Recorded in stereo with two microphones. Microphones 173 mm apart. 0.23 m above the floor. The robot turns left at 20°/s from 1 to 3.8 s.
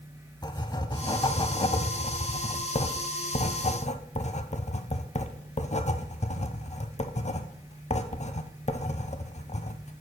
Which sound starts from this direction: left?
Writing, at 0.4 s.